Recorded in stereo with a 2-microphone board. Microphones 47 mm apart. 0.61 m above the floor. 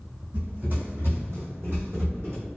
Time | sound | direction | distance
0.3 | running footsteps | 40° right (ahead or behind) | 1.7 m